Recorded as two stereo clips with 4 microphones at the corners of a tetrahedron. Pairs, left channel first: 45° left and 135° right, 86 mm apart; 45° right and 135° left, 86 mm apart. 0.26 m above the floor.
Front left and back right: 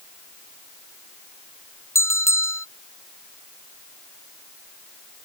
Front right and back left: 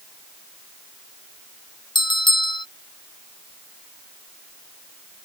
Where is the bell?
15° right.